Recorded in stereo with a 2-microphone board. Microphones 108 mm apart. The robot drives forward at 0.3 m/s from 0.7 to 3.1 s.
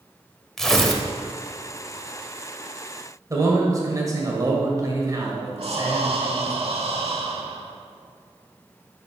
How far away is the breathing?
About 0.9 m.